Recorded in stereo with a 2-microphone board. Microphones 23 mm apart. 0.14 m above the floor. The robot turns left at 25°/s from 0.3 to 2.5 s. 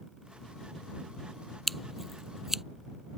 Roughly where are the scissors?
Centre.